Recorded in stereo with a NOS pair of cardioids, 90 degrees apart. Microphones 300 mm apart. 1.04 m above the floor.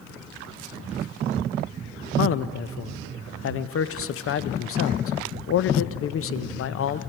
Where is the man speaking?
50° left, 0.6 m.